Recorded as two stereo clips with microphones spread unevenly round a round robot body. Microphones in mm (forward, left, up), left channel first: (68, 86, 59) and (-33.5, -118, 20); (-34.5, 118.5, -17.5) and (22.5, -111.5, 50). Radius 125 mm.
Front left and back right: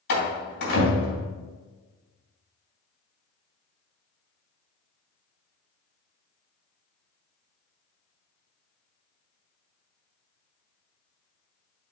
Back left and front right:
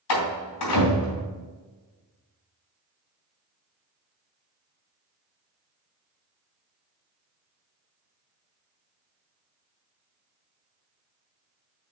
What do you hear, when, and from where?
0.1 s a door slam: 115° left, 3 m